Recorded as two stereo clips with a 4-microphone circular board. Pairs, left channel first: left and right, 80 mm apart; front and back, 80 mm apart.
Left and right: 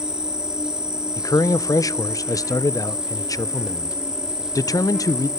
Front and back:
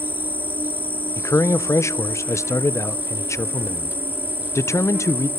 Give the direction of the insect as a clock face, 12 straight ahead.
5 o'clock.